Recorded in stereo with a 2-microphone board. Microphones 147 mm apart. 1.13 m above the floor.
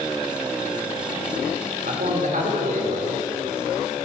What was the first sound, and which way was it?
A man speaking, 65° right (ahead or behind).